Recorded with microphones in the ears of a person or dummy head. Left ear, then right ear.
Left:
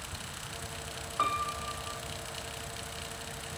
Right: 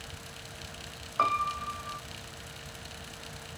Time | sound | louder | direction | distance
1.2 | a piano | right 3 dB | 25° right (ahead or behind) | 0.7 m